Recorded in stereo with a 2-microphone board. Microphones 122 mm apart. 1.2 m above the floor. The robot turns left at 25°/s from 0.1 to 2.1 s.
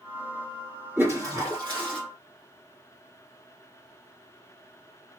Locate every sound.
1.0 s a toilet flushing: 20° right (ahead or behind), 1.5 m; by 2.0 s 45° right (ahead or behind), 1.5 m